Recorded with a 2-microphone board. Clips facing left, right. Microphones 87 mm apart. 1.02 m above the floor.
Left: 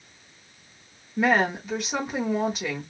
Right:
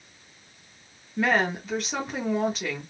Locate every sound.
1.2 s a woman speaking: 10° left (ahead or behind), 1.9 m